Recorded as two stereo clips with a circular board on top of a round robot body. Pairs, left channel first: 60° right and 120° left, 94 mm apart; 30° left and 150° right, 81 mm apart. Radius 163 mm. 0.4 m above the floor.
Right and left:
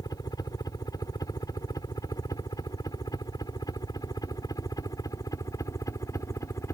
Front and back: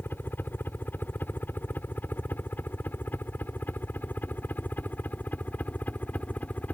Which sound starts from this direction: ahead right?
A helicopter, at 0.0 s.